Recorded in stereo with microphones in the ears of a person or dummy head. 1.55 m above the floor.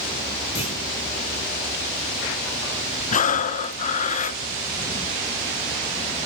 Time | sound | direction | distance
0.6 | a clunk | 35° left (ahead or behind) | 4.5 m
3.1 | breathing | 40° left (ahead or behind) | 0.5 m